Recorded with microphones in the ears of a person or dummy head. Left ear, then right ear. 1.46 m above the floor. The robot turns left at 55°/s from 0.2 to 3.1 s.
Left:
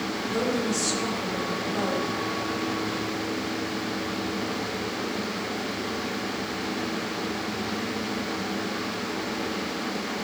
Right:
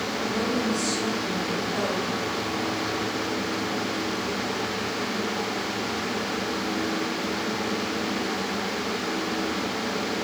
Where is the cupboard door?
No cupboard door in this recording.